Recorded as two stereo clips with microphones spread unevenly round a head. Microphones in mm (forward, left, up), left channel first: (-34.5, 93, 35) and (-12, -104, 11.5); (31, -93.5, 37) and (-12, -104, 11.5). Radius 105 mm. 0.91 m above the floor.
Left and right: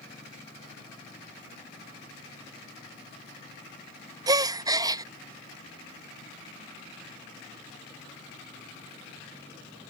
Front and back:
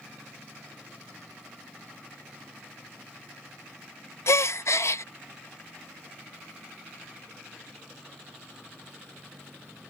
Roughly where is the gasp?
Ahead.